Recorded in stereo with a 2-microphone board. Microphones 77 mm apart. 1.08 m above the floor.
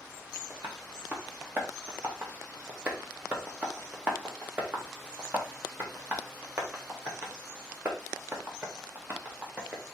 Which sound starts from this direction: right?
Tapping, at 0.5 s.